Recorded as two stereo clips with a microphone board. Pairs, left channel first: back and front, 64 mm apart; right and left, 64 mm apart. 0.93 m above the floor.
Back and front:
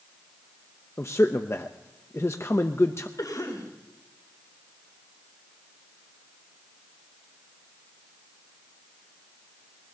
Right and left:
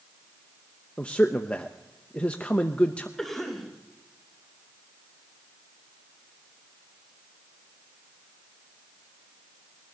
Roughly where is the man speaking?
Behind right.